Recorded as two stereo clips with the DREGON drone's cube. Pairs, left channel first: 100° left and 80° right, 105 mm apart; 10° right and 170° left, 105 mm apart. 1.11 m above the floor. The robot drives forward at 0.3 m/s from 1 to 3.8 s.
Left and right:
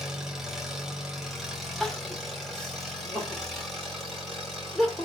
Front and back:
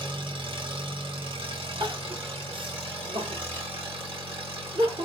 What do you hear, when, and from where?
0.0 s an engine running: 165° right, 1.1 m; by 5.1 s 170° right, 1.9 m
1.8 s crying: 175° right, 0.8 m; by 5.1 s straight behind, 1.4 m